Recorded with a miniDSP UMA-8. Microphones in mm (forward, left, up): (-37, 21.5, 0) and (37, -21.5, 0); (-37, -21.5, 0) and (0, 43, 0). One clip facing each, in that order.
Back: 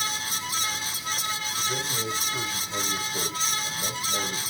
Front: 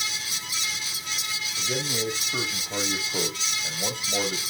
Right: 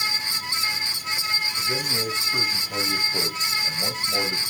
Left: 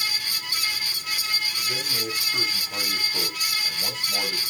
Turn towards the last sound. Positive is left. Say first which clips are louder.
# front 5 dB, right 3 dB
turn(degrees=-55)